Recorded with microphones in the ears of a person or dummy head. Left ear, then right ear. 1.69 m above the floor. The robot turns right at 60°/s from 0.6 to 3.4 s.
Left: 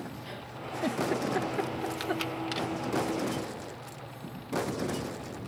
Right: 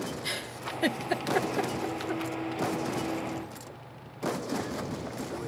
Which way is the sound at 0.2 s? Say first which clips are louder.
Right 6 dB; 70° right (ahead or behind).